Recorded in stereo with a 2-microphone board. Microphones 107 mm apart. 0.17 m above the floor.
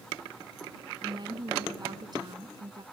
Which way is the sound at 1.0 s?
45° right (ahead or behind).